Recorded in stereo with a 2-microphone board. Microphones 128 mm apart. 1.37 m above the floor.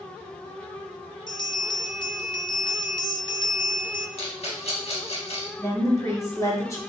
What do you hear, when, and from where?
1.3 s a bell: 35° left (ahead or behind), 0.5 m
4.2 s a rattle: 50° left (ahead or behind), 1.3 m
5.6 s a woman speaking: 20° left (ahead or behind), 1.2 m